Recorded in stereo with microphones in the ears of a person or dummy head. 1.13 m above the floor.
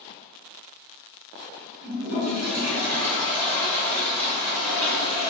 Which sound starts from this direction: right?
A toilet flushing, at 1.8 s.